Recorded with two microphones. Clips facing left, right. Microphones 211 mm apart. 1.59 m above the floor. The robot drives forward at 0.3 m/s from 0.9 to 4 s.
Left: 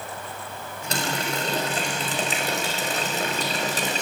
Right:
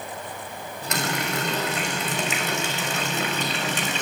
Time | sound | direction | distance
0.9 | a running tap | 35° left (ahead or behind) | 5.5 m